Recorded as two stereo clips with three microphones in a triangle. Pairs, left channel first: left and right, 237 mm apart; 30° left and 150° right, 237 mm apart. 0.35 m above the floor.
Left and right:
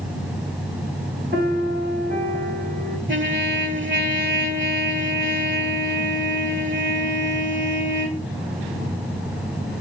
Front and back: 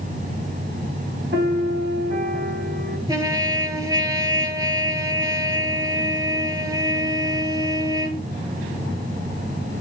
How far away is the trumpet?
About 1.1 m.